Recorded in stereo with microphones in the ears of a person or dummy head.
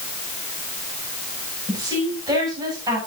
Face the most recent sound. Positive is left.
turn(degrees=-20)  # may be behind; listen again after turning